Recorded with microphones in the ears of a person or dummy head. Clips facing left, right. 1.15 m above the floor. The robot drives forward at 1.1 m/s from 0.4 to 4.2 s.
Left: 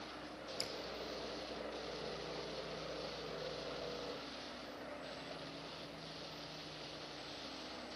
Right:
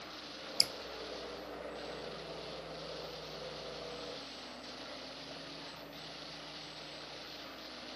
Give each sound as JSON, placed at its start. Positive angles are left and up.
{"t": 0.6, "sound": "dripping", "side_deg": -85, "distance_m": 0.5}